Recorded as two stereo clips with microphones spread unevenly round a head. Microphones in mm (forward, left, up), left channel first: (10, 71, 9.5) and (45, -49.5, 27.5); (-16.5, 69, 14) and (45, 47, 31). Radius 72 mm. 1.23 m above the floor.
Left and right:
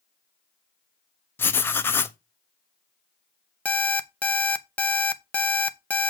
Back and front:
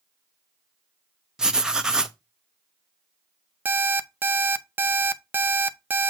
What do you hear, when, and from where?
1.4 s writing: 30° left, 0.6 m
3.6 s an alarm clock: 25° left, 0.5 m